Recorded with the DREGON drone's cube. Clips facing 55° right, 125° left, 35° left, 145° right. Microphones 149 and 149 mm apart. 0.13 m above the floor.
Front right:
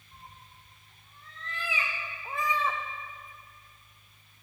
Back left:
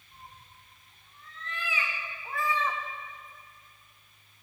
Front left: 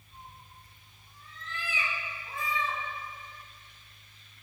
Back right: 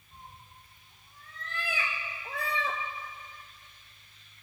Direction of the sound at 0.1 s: 105° right.